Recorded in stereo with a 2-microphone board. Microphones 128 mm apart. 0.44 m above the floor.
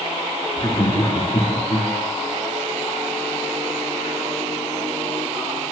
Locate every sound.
0.6 s laughter: 40° left (ahead or behind), 7 m; by 1.9 s 45° left (ahead or behind), 8 m